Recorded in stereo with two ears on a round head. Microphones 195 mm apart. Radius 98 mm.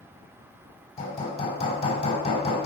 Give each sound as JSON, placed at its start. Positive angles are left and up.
{"t": 1.0, "sound": "hammering", "side_deg": 30, "distance_m": 5.0}